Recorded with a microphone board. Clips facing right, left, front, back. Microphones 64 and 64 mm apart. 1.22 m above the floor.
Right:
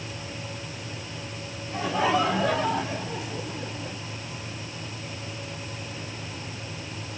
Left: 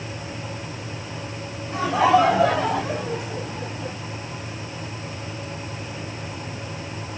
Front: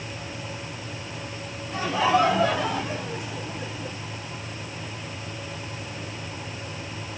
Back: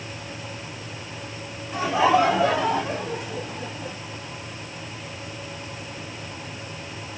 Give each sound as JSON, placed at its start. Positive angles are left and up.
{"t": 1.7, "sound": "laughter", "azimuth_deg": 105, "distance_m": 2.5}